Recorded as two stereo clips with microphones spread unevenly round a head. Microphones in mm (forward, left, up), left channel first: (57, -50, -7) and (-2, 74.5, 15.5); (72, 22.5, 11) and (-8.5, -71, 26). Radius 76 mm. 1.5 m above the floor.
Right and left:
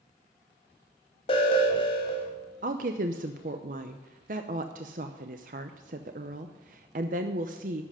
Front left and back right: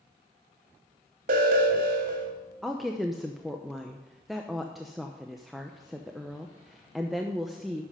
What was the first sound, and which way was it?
An alarm, 125° right.